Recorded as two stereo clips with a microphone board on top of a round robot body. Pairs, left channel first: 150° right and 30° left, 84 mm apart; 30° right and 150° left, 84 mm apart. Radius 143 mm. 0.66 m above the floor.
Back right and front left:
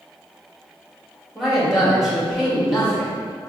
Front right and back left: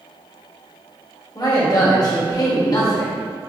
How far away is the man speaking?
About 1.6 m.